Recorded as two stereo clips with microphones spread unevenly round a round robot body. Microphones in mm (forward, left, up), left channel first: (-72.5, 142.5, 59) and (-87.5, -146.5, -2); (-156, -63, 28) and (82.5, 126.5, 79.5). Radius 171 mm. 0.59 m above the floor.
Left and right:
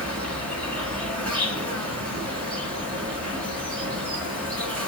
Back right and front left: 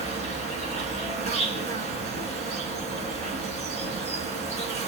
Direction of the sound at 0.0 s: 20° right.